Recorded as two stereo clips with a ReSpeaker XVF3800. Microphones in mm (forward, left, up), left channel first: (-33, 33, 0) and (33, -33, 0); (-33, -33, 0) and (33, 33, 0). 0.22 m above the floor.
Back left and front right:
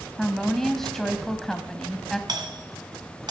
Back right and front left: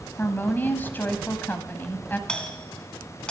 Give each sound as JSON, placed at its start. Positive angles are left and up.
{"t": 0.2, "sound": "a woman speaking", "azimuth_deg": -145, "distance_m": 1.2}
{"t": 2.3, "sound": "a doorbell", "azimuth_deg": -60, "distance_m": 2.0}